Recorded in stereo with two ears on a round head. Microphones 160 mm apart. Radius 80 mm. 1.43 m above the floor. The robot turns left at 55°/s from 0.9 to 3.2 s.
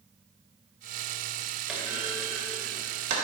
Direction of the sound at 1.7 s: 5° right (ahead or behind).